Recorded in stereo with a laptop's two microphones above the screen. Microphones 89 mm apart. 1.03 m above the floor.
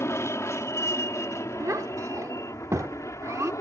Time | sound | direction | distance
0.0 | an aircraft | 30° left (ahead or behind) | ?
1.6 | a child speaking | 35° right (ahead or behind) | ?